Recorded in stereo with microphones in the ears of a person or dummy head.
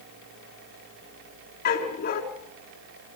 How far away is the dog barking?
About 4 m.